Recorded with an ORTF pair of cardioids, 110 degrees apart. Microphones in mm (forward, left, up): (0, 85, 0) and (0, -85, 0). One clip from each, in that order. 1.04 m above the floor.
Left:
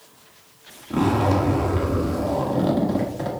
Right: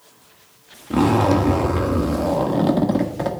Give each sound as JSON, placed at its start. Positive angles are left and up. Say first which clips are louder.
{"t": 0.9, "sound": "a zipper", "louder": "right 4 dB", "azimuth_deg": -30, "distance_m": 1.6}